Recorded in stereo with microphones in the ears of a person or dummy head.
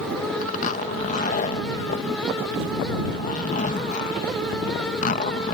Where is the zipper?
45° left (ahead or behind).